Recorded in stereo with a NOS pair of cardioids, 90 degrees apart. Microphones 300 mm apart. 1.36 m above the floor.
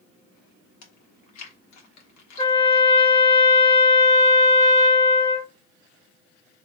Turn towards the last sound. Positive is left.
turn(degrees=10)